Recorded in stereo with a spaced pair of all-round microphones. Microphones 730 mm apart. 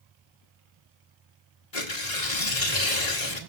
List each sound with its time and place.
1.7 s tearing paper: 65° left (ahead or behind), 1.9 m